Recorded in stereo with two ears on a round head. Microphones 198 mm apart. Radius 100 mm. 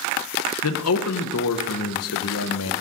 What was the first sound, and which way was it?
A man speaking, 75° left (ahead or behind).